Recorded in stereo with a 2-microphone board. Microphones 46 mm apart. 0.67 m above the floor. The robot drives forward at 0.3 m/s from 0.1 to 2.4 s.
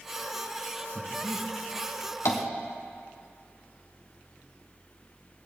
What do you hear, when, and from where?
0.9 s breathing: 70° right (ahead or behind), 3.5 m
2.2 s tapping: 85° left, 1.5 m; by 2.4 s 80° left, 1.5 m